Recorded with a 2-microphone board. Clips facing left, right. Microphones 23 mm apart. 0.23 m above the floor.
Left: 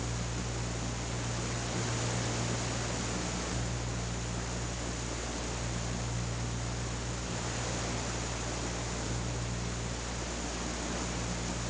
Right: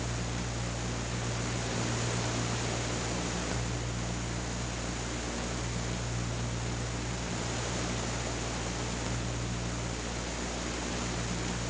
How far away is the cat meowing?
No cat meowing in this recording.